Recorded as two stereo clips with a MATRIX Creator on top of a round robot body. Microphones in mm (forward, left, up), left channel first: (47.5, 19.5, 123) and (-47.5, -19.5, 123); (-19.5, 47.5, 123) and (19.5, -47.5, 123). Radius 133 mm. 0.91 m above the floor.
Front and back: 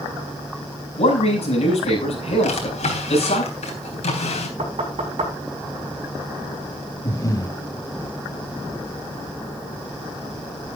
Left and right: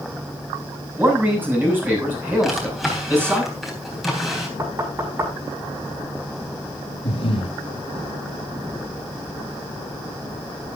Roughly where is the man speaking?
Ahead.